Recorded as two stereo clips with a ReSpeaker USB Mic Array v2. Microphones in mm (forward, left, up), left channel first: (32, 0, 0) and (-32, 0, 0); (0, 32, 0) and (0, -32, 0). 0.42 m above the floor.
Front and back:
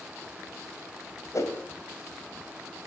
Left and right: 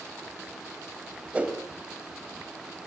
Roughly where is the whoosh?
Ahead.